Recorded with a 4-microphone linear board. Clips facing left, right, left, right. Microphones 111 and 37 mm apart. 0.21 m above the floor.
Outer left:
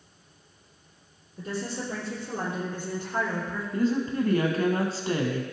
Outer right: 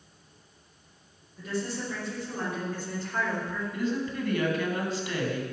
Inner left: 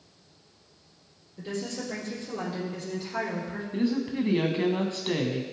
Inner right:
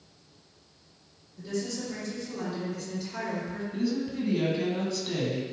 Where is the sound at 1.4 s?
40° left (ahead or behind), 4 m; by 3.6 s 10° left (ahead or behind), 3 m.